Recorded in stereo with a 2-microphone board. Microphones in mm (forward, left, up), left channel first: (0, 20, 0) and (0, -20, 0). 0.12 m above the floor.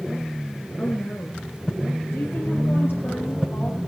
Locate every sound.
0.8 s a woman speaking: 40° left (ahead or behind), 1.5 m; by 3.8 s 55° left (ahead or behind), 3 m